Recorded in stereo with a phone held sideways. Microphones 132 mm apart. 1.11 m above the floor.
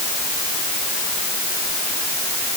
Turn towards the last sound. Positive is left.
No sound to turn to.